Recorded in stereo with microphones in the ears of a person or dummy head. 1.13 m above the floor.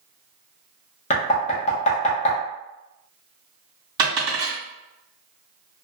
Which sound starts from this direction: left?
Knocking, at 1.1 s.